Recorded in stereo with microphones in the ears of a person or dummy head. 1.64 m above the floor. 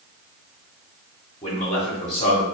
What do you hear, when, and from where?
1.4 s a man speaking: 35° left (ahead or behind), 1.2 m